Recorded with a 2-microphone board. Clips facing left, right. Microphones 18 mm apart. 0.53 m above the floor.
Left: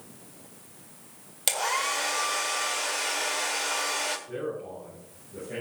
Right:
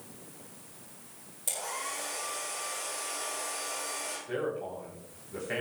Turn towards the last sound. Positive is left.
turn(degrees=-70)  # may be behind; listen again after turning